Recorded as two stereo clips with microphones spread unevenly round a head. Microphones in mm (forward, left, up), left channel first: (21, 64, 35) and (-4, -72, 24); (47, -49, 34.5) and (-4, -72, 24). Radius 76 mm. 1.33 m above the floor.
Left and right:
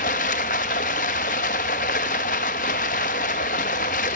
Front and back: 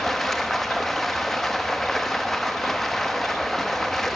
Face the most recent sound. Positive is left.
turn(degrees=105)